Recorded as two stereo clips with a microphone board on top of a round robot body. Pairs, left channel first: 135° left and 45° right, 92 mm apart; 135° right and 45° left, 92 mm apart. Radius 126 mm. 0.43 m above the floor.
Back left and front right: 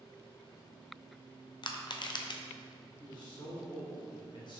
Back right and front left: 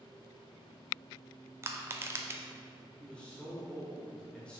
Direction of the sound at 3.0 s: 150° left.